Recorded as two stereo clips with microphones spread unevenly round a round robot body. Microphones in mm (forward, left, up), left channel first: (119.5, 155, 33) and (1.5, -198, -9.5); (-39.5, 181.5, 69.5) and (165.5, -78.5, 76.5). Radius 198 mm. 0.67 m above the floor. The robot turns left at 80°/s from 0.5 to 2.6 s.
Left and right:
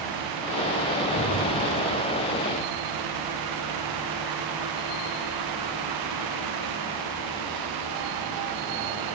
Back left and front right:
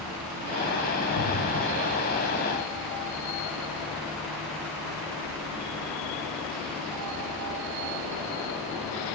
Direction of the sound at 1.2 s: 145° left.